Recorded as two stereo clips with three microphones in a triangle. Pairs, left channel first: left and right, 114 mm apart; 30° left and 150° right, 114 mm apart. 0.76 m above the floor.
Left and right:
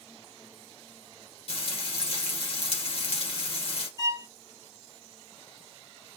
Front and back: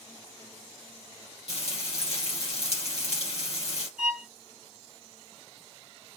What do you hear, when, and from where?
1.5 s frying: 55° left, 2 m
4.0 s a violin: 135° left, 1.3 m